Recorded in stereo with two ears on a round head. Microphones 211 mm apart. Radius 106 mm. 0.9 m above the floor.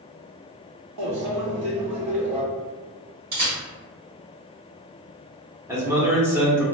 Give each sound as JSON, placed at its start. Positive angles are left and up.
{"t": 1.0, "sound": "a microwave", "side_deg": -85, "distance_m": 0.9}
{"t": 3.3, "sound": "a camera shutter", "side_deg": -40, "distance_m": 1.6}
{"t": 5.7, "sound": "a man speaking", "side_deg": -10, "distance_m": 0.8}